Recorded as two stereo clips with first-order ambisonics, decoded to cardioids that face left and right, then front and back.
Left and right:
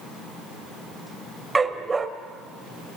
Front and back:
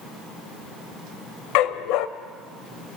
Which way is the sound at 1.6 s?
15° right.